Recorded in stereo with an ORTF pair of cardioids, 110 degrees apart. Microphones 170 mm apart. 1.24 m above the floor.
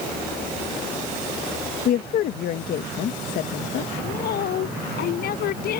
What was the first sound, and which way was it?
A woman speaking, 65° left.